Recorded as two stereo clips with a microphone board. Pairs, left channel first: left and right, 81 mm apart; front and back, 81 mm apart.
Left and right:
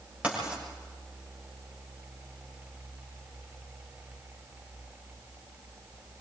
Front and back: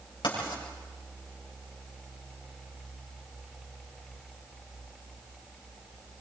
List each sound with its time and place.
0.2 s writing: 15° right, 7 m